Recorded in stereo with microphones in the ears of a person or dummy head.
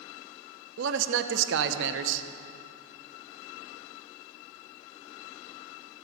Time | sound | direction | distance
0.8 | a man speaking | 75° right (ahead or behind) | 0.9 m